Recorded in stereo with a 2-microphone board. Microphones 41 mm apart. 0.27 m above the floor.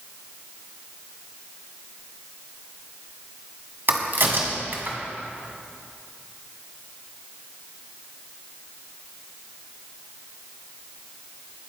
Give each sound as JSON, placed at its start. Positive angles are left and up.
{"t": 3.9, "sound": "a crack", "side_deg": -55, "distance_m": 1.7}